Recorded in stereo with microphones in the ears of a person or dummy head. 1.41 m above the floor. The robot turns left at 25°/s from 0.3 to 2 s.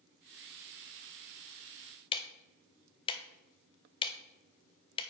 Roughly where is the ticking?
Left.